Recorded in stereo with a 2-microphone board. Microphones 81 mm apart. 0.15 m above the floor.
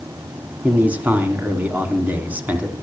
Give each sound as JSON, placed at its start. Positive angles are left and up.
{"t": 0.6, "sound": "a man speaking", "side_deg": -20, "distance_m": 1.6}